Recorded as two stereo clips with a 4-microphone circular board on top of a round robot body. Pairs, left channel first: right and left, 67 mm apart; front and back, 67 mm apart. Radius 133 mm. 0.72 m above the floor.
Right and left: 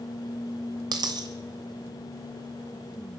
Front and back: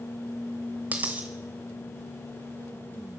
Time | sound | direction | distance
0.9 | a dropped coin | 110° left | 1.0 m